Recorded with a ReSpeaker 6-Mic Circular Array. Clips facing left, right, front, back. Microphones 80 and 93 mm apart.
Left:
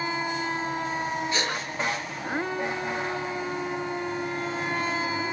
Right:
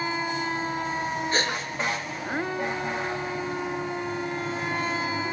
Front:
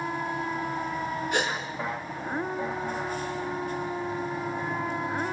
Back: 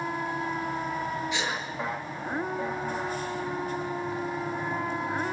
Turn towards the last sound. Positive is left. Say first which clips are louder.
# right 2 dB, front 3 dB
turn(degrees=-40)